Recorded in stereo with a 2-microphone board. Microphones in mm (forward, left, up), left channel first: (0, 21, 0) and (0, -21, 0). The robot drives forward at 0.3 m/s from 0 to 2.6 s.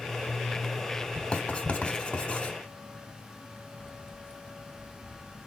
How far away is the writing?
About 1.5 m.